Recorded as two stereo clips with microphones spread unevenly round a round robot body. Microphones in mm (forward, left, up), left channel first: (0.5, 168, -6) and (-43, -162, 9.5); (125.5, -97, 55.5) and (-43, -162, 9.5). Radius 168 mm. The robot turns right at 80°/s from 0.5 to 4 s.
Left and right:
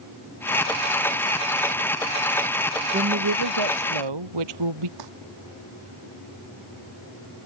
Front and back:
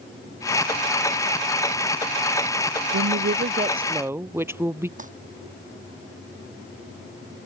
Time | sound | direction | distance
2.9 | a woman speaking | 165° right | ?
5.0 | crumpling | 115° right | ?